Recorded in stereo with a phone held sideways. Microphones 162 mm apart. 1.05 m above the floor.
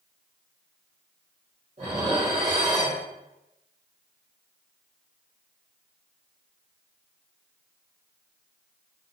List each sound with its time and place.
1.8 s dishes clattering: 45° right (ahead or behind), 1.8 m